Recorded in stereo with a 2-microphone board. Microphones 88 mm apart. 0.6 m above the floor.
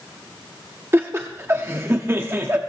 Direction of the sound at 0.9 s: 30° right (ahead or behind).